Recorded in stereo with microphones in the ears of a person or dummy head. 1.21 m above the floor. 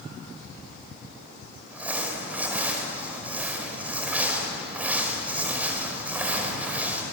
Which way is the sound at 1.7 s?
5° right (ahead or behind).